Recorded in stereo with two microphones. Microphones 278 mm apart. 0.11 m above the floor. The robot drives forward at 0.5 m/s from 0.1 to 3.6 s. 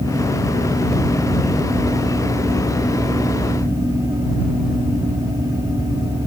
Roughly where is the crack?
No crack in this recording.